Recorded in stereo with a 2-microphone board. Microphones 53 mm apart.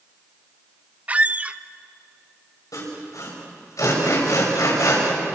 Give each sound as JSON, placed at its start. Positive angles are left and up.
{"t": 1.1, "sound": "a squeak", "side_deg": -25, "distance_m": 0.6}
{"t": 2.7, "sound": "sawing", "side_deg": 90, "distance_m": 6.0}